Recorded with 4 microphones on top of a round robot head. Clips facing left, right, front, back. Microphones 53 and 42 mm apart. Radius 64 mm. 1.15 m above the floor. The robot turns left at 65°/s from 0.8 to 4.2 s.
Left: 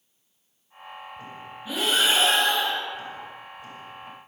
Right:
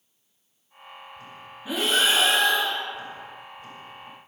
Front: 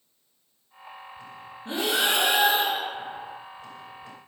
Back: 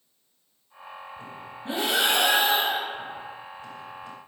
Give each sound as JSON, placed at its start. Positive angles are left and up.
{"t": 1.6, "sound": "breathing", "azimuth_deg": -170, "distance_m": 5.0}